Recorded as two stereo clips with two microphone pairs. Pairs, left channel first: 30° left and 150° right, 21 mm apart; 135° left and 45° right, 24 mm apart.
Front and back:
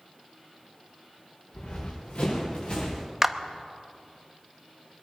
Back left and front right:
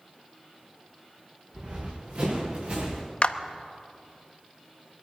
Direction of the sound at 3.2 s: 145° left.